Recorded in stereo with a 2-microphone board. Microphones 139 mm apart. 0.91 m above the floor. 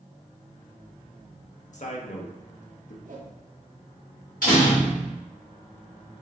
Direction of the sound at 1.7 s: 60° left (ahead or behind).